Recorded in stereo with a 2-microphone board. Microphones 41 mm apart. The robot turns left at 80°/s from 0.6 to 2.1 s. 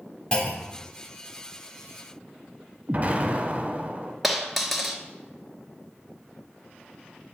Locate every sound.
0.3 s a clunk: 25° left (ahead or behind), 0.9 m; by 0.9 s 30° left (ahead or behind), 0.9 m
2.9 s an explosion: 40° right (ahead or behind), 0.8 m
4.2 s a dropped coin: centre (ahead or behind), 0.8 m